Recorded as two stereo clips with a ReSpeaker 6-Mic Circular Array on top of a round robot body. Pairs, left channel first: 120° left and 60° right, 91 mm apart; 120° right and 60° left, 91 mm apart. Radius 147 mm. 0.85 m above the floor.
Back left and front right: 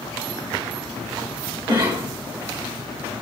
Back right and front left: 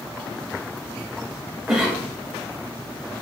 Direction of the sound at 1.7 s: 15° right.